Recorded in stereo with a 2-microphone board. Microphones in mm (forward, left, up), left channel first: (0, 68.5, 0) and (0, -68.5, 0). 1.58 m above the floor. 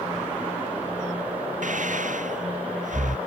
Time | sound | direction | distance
1.6 | breathing | 65° right (ahead or behind) | ?